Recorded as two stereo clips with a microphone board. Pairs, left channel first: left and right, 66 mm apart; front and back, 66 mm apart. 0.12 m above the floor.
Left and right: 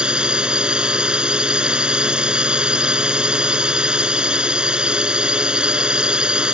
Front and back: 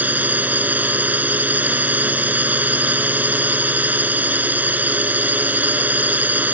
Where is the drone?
150° right.